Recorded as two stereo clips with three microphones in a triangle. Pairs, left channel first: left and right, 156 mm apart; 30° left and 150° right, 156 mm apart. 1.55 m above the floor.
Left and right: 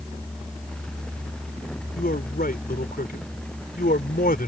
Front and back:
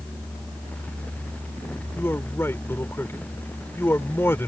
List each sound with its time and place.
1.9 s a man speaking: 105° left